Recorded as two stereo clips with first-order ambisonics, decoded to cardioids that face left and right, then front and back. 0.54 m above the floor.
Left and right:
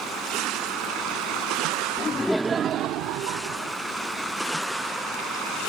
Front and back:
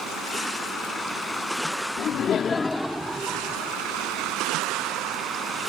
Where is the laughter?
35° left; by 3.8 s 110° right.